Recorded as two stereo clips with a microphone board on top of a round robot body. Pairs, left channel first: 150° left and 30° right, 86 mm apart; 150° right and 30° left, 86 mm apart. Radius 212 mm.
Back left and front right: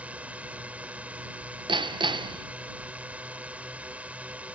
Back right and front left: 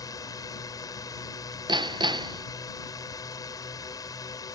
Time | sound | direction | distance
0.0 | a drone | 105° right | ?
1.7 | hammering | 5° right | ?